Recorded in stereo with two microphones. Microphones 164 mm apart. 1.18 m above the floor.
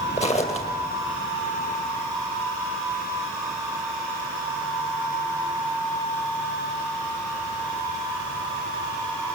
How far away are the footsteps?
About 2 m.